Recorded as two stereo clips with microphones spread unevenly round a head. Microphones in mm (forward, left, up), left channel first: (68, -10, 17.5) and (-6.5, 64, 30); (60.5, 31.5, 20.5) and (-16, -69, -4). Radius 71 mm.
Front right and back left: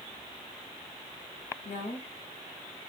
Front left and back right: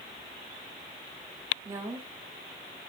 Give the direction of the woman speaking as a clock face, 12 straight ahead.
2 o'clock.